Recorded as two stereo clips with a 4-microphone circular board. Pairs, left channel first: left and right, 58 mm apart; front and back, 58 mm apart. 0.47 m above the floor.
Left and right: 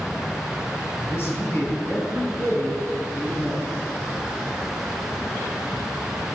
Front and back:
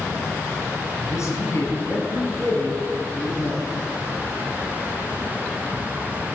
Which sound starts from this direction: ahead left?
A man speaking, at 1.0 s.